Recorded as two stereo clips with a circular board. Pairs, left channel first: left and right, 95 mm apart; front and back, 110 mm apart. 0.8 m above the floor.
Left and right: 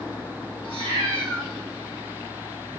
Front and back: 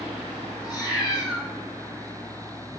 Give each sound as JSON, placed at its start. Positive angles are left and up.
{"t": 0.6, "sound": "a cat meowing", "azimuth_deg": -115, "distance_m": 3.5}